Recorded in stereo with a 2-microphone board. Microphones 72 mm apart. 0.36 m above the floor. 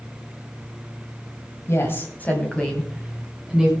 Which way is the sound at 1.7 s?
40° left (ahead or behind).